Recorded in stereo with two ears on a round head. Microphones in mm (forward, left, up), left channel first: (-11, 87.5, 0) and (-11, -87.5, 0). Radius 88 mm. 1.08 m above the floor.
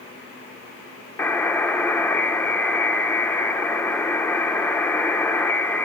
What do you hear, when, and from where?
1.2 s a buzzer: 10° left (ahead or behind), 1.0 m